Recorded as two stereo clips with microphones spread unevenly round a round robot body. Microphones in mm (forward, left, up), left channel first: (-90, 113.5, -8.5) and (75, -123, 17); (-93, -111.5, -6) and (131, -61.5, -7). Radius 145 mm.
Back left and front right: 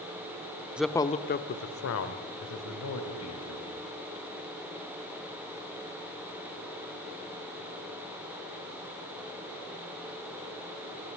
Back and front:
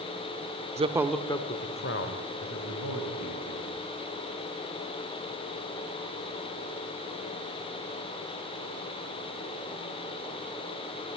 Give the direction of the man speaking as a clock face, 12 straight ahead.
11 o'clock.